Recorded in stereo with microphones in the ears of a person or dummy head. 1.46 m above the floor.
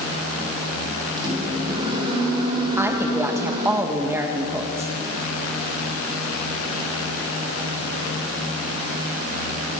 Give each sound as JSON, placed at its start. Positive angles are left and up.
{"t": 1.2, "sound": "a microwave", "side_deg": -25, "distance_m": 5.5}
{"t": 2.8, "sound": "a woman speaking", "side_deg": -10, "distance_m": 2.0}